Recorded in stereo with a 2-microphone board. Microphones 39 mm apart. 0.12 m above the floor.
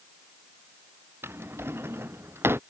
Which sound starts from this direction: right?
A drawer, at 1.2 s.